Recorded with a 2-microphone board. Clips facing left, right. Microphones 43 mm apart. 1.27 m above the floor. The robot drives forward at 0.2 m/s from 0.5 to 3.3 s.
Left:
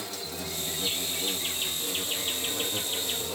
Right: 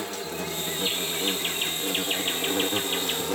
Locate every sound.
0.0 s an insect: 40° right (ahead or behind), 0.9 m; by 3.4 s 65° right (ahead or behind), 0.7 m